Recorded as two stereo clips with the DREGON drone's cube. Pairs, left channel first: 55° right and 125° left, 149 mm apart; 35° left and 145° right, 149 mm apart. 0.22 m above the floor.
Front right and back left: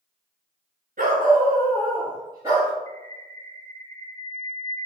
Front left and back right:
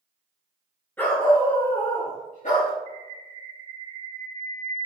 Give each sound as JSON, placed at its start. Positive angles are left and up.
{"t": 1.0, "sound": "a dog barking", "azimuth_deg": 110, "distance_m": 1.7}
{"t": 2.9, "sound": "a bird", "azimuth_deg": -125, "distance_m": 1.8}